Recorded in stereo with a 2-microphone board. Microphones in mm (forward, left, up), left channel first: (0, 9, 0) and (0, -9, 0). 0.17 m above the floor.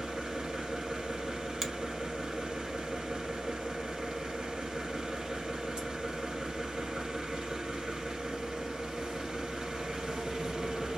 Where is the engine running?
65° right (ahead or behind), 1.4 m.